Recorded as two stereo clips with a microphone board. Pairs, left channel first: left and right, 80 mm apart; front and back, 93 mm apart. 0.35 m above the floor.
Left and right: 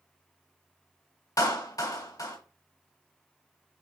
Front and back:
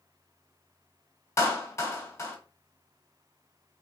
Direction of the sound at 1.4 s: 55° left.